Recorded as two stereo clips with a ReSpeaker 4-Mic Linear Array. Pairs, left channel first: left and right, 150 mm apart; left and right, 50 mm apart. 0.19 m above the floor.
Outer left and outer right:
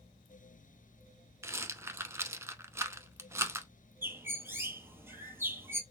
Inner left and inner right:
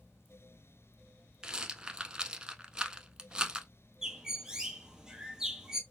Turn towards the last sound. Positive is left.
turn(degrees=-15)  # may be behind; listen again after turning